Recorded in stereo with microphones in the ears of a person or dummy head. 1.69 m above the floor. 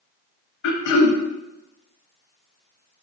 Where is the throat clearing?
65° left (ahead or behind), 0.7 m.